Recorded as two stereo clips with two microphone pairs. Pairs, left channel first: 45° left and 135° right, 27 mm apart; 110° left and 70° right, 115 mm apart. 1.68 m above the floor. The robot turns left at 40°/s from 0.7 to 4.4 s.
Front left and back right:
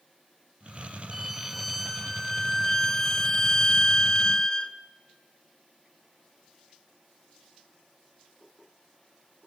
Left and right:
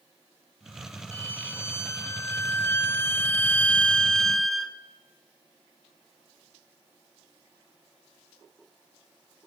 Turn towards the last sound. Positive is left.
turn(degrees=30)